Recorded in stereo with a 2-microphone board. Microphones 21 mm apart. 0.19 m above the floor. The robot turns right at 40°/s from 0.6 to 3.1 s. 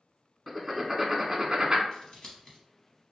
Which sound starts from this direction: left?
Scissors, at 1.9 s.